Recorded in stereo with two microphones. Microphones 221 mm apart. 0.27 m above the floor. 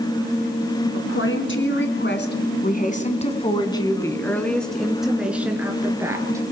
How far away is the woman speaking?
About 2.5 m.